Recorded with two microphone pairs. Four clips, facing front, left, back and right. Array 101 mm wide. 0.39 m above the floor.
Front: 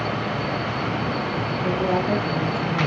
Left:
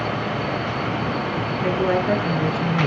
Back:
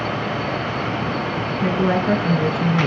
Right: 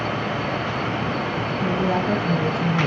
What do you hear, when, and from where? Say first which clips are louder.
1.6 s a woman speaking: left 2 dB, back 4 dB; 170° left, 5.5 m